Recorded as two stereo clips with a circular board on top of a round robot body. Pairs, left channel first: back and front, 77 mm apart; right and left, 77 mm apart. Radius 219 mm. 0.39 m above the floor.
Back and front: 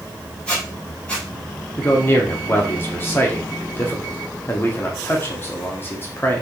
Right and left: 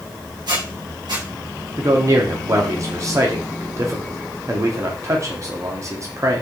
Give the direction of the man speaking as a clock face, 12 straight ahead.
8 o'clock.